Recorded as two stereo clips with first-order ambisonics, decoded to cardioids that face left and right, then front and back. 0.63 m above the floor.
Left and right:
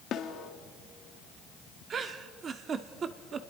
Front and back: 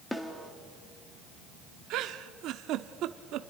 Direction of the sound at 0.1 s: 80° left.